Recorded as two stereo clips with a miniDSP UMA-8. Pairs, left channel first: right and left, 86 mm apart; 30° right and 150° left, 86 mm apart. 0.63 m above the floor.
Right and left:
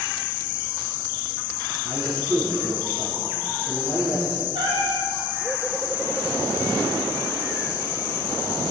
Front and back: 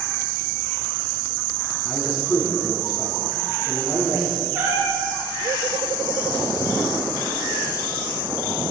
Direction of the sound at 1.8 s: 70° left.